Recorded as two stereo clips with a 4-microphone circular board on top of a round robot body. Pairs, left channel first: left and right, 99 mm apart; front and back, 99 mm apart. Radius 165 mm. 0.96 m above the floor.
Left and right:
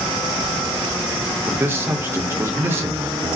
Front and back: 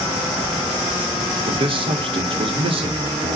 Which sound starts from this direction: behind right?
A man speaking, at 1.5 s.